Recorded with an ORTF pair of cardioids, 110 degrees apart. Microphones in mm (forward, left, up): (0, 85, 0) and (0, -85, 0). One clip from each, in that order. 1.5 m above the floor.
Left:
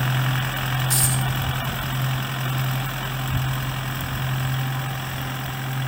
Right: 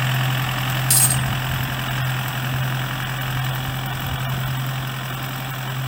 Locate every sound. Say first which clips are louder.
0.9 s a dropped coin: right 6 dB; 65° right, 3.5 m